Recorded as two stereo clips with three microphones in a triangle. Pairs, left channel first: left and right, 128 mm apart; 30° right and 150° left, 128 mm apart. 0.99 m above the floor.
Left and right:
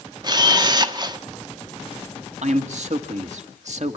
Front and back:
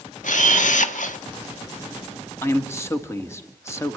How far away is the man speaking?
About 1.9 m.